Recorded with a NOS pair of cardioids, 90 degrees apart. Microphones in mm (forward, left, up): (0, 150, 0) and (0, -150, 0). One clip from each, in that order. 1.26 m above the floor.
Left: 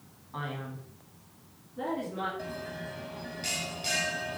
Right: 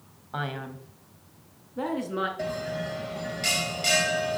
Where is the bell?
50° right, 0.9 m.